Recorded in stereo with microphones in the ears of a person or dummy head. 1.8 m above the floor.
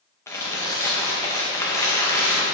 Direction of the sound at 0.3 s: 15° left (ahead or behind).